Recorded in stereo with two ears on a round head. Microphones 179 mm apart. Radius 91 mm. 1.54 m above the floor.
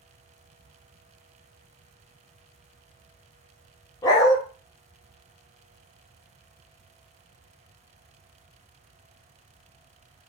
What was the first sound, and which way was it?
A dog barking, 20° left (ahead or behind).